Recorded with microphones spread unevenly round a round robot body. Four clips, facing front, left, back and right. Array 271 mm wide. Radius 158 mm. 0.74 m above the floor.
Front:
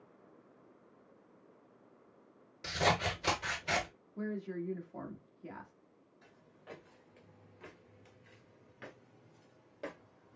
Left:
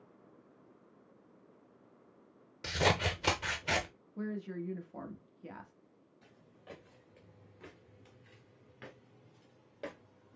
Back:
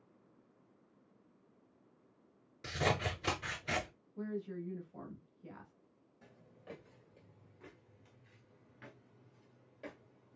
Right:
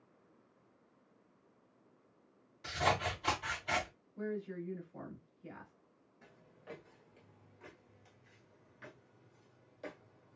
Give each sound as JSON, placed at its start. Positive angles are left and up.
{"t": 2.6, "sound": "scissors", "azimuth_deg": 120, "distance_m": 0.7}
{"t": 4.2, "sound": "a woman speaking", "azimuth_deg": 40, "distance_m": 1.2}
{"t": 6.2, "sound": "footsteps", "azimuth_deg": 180, "distance_m": 1.1}